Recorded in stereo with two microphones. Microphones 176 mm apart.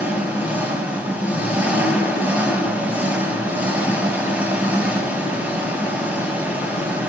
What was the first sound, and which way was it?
An engine running, 10° right (ahead or behind).